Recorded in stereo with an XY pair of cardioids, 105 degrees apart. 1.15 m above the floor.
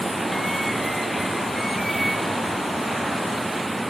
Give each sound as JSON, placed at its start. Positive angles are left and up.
{"t": 0.0, "sound": "running water", "azimuth_deg": -5}